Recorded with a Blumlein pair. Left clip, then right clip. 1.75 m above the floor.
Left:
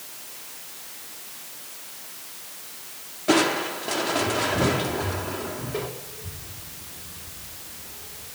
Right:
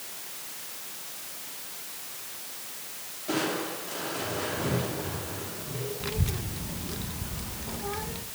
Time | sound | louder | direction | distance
3.3 | crushing | left 8 dB | 60° left | 3 m
6.0 | a child speaking | right 7 dB | 45° right | 1.8 m